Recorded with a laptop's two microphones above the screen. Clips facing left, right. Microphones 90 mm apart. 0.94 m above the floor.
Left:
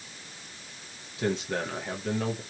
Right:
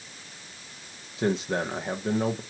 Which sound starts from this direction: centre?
A man speaking, at 1.2 s.